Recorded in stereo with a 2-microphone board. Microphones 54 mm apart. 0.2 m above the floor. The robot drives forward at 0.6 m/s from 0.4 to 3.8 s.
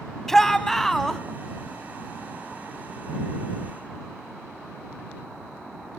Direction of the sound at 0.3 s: 10° left (ahead or behind).